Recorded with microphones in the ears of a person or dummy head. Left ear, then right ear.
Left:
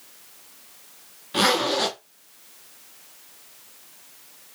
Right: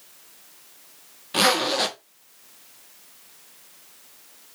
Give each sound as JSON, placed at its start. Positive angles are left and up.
{"t": 1.3, "sound": "a zipper", "side_deg": -15, "distance_m": 1.1}